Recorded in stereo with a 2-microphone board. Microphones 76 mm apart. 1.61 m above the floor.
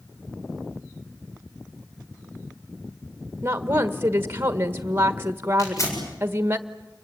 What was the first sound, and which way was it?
A woman speaking, 30° right (ahead or behind).